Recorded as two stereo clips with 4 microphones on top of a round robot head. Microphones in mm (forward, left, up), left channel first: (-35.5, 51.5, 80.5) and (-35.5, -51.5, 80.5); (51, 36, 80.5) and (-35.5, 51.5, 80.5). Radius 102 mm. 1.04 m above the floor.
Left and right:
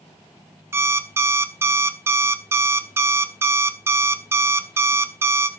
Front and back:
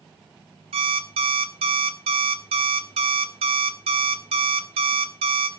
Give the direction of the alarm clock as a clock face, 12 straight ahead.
5 o'clock.